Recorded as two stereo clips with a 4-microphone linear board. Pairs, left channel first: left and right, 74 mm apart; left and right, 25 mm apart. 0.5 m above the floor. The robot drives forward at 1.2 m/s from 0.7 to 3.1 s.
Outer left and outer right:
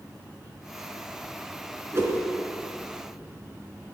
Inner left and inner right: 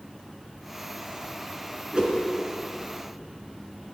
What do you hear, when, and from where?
1.9 s a whoosh: 35° right (ahead or behind), 3 m